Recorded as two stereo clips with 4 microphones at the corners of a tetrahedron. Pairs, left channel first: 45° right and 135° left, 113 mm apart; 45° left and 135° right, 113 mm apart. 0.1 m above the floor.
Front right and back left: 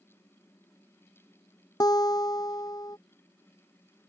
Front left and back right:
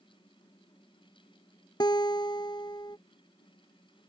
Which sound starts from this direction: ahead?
A guitar, at 1.8 s.